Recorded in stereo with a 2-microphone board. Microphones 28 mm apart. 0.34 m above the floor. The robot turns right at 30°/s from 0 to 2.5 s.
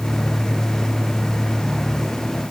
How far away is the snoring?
No snoring in this recording.